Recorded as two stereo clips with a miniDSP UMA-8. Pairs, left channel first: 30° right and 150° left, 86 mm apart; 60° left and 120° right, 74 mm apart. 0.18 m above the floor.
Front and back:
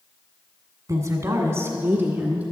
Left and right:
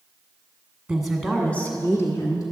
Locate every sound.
0.9 s a woman speaking: 165° left, 1.5 m; by 2.4 s 80° left, 1.9 m